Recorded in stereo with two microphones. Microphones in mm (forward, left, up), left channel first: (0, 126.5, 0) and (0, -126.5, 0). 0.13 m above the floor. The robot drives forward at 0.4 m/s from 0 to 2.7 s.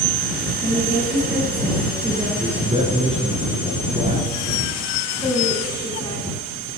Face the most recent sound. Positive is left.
turn(degrees=15)  # may be behind; listen again after turning